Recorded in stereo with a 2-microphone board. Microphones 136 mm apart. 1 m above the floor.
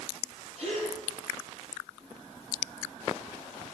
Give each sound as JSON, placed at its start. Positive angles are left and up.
{"t": 0.6, "sound": "a gasp", "side_deg": -55, "distance_m": 7.0}